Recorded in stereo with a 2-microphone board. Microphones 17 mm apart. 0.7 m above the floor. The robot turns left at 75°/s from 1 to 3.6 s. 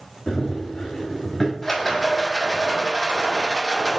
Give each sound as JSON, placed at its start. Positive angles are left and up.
{"t": 0.3, "sound": "running footsteps", "side_deg": 45, "distance_m": 2.5}
{"t": 1.6, "sound": "a rattle", "azimuth_deg": 10, "distance_m": 2.5}